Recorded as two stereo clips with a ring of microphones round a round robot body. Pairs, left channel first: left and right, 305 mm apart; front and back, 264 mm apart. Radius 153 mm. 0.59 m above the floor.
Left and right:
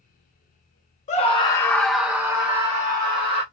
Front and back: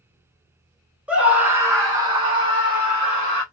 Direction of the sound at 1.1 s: 100° left.